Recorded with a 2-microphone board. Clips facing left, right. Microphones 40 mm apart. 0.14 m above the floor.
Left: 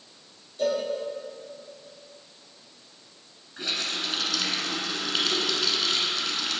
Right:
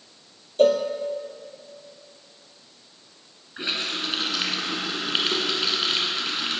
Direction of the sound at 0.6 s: 60° right (ahead or behind).